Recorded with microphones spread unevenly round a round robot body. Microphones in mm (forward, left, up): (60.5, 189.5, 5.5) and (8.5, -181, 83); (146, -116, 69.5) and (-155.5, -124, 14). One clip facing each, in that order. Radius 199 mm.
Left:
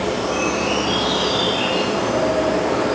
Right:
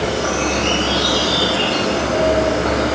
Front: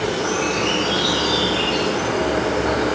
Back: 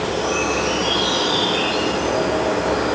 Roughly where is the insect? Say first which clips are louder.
Right 1 dB, even; ahead right.